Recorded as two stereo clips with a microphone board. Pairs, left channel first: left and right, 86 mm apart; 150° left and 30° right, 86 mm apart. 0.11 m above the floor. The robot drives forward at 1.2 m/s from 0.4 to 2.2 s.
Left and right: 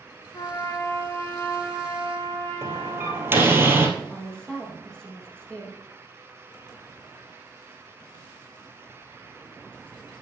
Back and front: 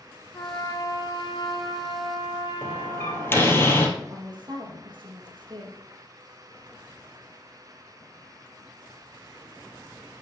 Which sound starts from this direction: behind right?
A door slam, at 2.6 s.